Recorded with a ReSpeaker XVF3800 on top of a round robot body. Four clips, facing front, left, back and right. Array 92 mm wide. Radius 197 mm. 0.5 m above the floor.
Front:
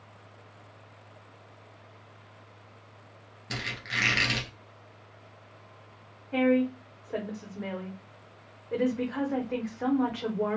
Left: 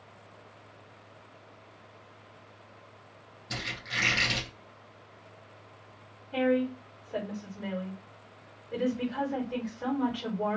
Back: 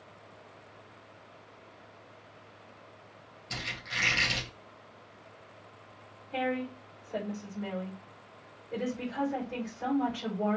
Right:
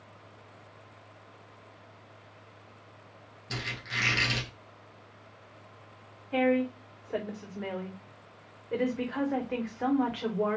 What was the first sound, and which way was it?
A squeak, 10° right.